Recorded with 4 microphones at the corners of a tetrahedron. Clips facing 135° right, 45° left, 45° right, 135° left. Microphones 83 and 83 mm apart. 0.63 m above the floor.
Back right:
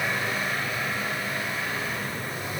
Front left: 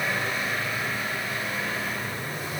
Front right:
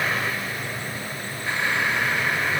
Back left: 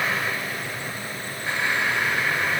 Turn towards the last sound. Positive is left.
No sound to turn to.